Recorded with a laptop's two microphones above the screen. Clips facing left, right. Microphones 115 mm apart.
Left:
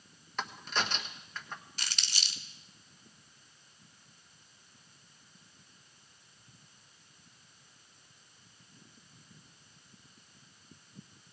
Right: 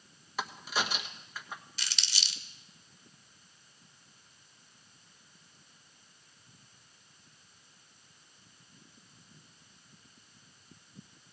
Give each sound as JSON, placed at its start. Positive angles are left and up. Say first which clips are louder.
{"t": 0.4, "sound": "a crack", "louder": "right 1 dB", "side_deg": -5, "distance_m": 1.3}
{"t": 1.8, "sound": "crumpling", "louder": "even", "side_deg": 45, "distance_m": 1.0}